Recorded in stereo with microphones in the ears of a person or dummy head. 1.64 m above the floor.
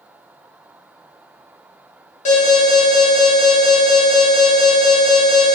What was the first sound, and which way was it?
An alarm, 35° left (ahead or behind).